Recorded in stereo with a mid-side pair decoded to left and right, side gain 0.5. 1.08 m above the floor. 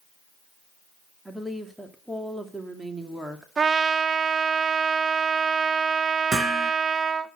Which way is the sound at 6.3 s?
30° right.